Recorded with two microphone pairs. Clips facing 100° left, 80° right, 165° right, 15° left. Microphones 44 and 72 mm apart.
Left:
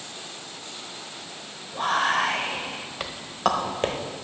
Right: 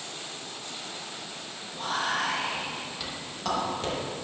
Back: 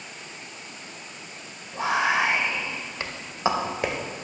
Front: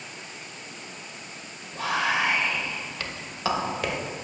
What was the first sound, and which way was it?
Whispering, 130° left.